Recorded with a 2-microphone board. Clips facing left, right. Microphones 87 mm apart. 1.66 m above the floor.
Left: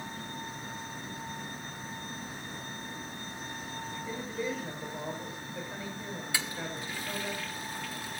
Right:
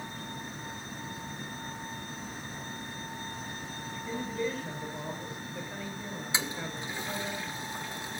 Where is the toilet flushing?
20° right (ahead or behind), 1.2 m.